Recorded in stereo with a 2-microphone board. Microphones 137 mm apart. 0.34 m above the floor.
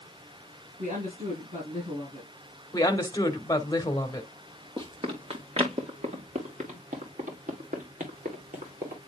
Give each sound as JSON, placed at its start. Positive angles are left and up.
{"t": 0.8, "sound": "a woman speaking", "side_deg": -70, "distance_m": 5.5}
{"t": 2.7, "sound": "a woman speaking", "side_deg": 25, "distance_m": 1.5}
{"t": 4.8, "sound": "running footsteps", "side_deg": -40, "distance_m": 2.0}